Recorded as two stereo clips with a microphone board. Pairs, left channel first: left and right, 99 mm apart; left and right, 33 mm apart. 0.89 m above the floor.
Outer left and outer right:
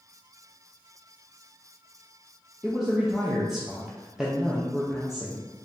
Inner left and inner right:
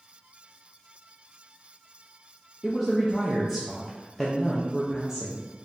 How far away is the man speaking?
About 0.6 m.